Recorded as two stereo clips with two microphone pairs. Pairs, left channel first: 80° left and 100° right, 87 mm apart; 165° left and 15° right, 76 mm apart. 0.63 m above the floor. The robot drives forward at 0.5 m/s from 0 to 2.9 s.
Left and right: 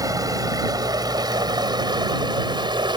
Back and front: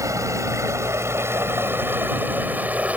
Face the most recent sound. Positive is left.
turn(degrees=-80)